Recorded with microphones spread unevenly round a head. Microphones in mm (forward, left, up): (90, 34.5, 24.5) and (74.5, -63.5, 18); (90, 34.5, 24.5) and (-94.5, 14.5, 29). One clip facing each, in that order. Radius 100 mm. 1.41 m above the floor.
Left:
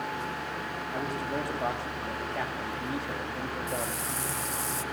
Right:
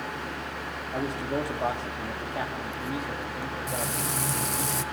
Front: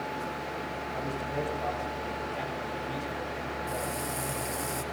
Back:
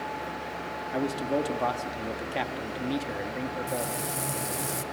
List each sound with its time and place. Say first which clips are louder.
0.9 s a man speaking: right 3 dB, back 8 dB; 170° right, 3 m; by 4.0 s 160° left, 2.5 m
3.7 s frying: right 2 dB, back 2 dB; 100° right, 0.9 m